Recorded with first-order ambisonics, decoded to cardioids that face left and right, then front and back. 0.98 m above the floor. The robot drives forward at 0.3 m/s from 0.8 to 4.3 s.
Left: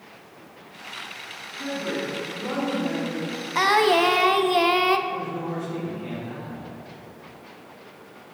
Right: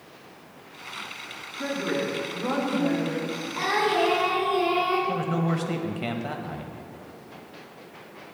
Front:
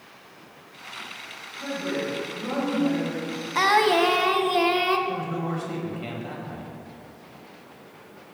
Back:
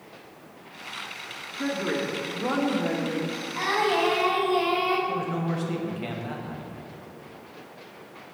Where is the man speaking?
100° right, 1.0 m.